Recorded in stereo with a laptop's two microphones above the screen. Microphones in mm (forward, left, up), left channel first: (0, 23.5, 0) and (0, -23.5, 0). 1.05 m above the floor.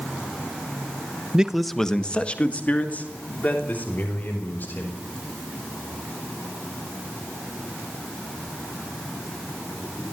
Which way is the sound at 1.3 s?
20° right (ahead or behind).